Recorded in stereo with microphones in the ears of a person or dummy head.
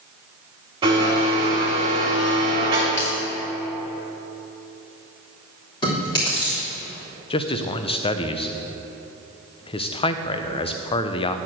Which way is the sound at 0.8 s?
25° right (ahead or behind).